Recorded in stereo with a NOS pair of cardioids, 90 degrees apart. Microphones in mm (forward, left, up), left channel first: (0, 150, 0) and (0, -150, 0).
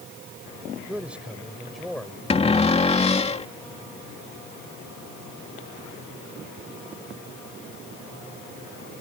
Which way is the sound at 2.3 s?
20° left.